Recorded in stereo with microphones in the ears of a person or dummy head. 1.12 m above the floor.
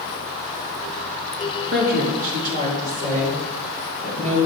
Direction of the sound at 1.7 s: 50° right (ahead or behind).